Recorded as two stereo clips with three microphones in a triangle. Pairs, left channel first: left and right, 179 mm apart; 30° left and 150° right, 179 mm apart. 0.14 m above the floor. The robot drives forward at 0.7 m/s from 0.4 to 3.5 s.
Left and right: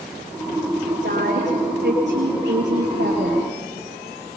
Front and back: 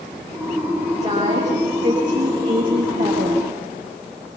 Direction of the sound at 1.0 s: 100° right.